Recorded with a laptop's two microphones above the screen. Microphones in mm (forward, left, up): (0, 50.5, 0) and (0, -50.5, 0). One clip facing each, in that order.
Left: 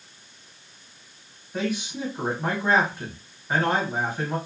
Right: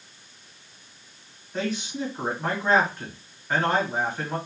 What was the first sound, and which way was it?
A man speaking, 10° left (ahead or behind).